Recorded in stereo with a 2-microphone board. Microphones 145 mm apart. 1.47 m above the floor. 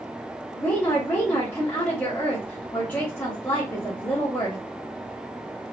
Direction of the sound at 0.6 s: 20° left (ahead or behind).